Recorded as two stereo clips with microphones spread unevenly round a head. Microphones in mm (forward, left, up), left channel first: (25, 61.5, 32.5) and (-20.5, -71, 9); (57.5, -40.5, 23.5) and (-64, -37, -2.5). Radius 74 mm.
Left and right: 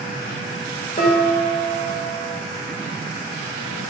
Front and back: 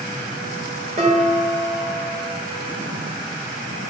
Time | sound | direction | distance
1.0 | dishes clattering | 125° left | 1.2 m